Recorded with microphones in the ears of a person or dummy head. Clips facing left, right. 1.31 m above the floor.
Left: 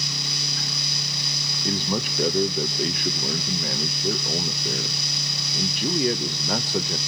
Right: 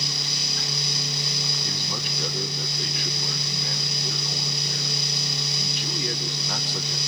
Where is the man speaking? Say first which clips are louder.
Left 8 dB; 45° left (ahead or behind), 0.9 m.